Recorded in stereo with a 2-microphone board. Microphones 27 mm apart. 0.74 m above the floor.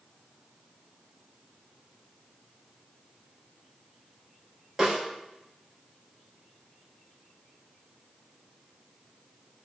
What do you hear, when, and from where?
4.8 s a snare drum: 15° right (ahead or behind), 1.5 m